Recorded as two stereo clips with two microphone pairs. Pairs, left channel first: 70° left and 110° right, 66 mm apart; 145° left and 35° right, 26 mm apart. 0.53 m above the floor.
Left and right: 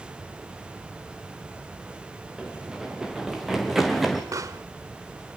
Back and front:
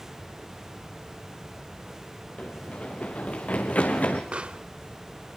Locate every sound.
2.4 s running footsteps: 175° left, 3.5 m; by 4.2 s 165° left, 3 m
4.3 s a pop: 80° right, 0.8 m